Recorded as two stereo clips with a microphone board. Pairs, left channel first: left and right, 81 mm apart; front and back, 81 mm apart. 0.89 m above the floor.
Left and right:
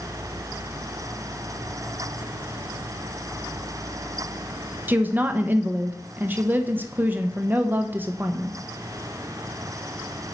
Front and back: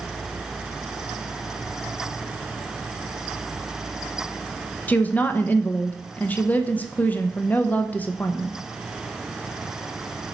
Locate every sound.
4.9 s a woman speaking: 50° right, 0.6 m